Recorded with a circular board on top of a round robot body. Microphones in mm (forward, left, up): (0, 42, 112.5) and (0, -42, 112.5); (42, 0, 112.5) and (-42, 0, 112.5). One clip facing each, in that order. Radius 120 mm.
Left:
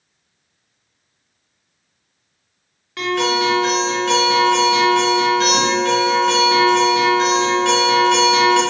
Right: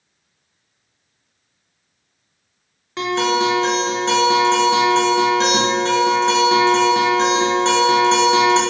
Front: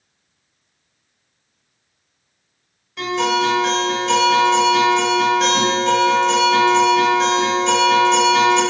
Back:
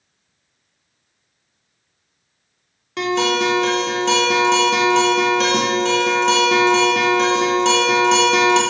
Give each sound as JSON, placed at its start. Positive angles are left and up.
{"t": 3.0, "sound": "a guitar", "azimuth_deg": -160, "distance_m": 0.6}